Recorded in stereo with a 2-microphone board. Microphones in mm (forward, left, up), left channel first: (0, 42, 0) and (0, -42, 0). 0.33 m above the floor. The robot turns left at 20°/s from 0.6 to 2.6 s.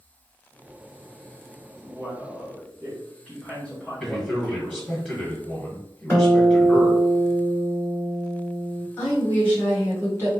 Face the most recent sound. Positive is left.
turn(degrees=25)  # may be behind; listen again after turning